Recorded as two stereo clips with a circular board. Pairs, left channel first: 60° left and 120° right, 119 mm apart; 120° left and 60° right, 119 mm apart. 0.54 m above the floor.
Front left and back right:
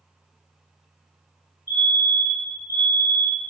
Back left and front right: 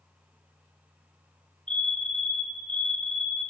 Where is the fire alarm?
165° right, 3 m.